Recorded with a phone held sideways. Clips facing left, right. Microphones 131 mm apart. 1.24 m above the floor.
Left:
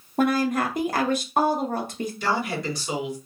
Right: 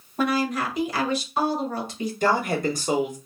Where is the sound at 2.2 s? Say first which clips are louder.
Right 5 dB; 50° right (ahead or behind), 1.0 m.